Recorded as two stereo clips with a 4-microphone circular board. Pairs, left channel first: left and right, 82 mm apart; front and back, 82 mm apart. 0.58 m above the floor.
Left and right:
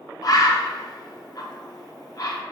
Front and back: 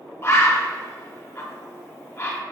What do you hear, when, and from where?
0.2 s a bird: 55° left, 0.5 m